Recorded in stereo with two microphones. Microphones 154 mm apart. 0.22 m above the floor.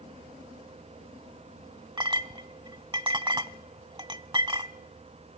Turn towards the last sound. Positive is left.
turn(degrees=-30)  # may be behind; listen again after turning